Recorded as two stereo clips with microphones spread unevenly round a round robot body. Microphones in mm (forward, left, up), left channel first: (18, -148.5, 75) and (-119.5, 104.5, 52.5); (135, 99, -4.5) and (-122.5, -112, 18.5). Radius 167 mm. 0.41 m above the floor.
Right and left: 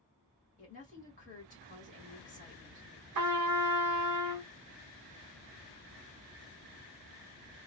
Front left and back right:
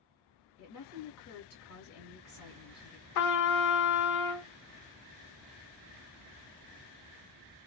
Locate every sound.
0.6 s a woman speaking: 5° left, 1.7 m
3.1 s a trumpet: 80° left, 0.6 m